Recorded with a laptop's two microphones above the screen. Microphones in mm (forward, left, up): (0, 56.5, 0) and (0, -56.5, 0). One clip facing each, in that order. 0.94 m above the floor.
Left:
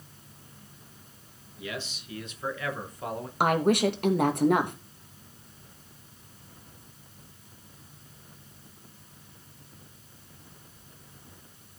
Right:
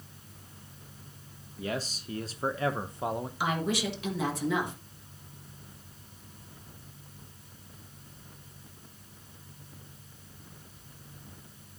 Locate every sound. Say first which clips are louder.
1.6 s a man speaking: right 3 dB; 35° right (ahead or behind), 1.2 m; by 3.3 s 15° right (ahead or behind), 0.8 m
3.4 s a woman speaking: left 9 dB; 50° left (ahead or behind), 1.2 m